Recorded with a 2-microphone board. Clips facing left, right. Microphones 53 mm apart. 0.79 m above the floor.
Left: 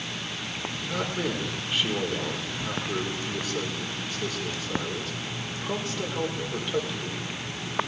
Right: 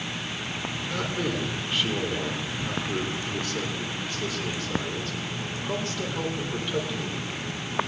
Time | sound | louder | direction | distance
0.9 | a man speaking | even | 5° left (ahead or behind) | 2.5 m